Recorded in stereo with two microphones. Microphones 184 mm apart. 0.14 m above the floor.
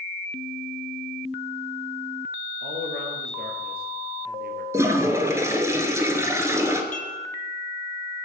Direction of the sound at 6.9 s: 50° left (ahead or behind).